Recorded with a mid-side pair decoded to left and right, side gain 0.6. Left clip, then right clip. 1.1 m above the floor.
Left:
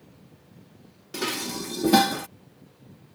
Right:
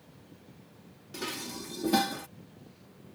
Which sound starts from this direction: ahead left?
Dishes clattering, at 1.1 s.